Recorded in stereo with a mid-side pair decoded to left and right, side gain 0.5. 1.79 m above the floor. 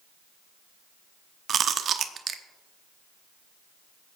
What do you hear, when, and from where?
1.5 s chewing: 45° right, 0.8 m